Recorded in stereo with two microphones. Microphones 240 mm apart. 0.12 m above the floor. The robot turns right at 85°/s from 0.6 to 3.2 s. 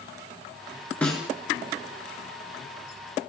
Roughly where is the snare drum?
Centre.